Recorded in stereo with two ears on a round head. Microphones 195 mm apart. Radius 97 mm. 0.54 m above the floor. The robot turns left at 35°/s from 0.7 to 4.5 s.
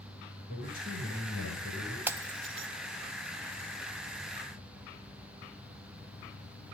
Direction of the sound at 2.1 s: 10° right (ahead or behind).